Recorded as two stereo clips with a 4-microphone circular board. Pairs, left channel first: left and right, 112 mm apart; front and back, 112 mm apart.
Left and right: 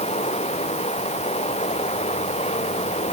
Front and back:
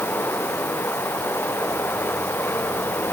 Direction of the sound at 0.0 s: 75° left.